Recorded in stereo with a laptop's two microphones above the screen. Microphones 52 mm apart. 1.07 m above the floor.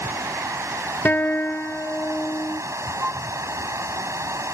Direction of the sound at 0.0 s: 85° right.